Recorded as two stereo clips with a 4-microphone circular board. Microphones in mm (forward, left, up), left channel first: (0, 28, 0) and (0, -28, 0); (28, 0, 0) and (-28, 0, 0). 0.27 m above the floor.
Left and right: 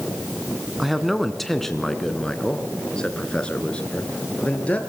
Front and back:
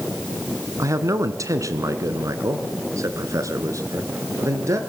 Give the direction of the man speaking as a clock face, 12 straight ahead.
6 o'clock.